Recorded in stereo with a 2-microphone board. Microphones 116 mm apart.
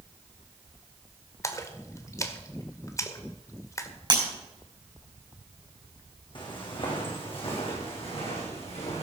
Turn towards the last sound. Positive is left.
turn(degrees=55)  # may be behind; listen again after turning